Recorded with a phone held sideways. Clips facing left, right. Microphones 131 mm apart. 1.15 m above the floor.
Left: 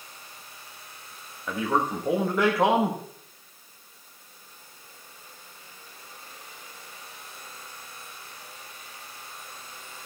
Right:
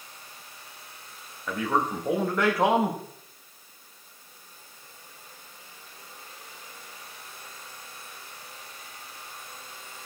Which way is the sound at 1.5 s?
5° left (ahead or behind).